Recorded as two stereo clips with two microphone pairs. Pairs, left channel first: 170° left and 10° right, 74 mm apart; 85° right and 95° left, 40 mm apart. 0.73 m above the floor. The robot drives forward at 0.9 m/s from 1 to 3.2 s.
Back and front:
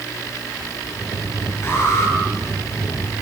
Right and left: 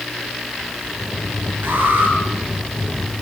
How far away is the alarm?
About 9.5 m.